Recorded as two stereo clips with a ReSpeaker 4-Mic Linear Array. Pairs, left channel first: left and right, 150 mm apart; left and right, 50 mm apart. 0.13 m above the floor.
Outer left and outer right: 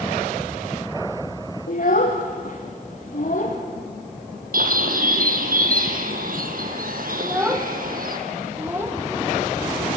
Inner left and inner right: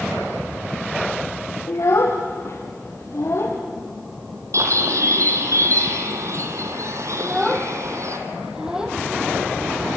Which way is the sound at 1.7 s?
75° left (ahead or behind).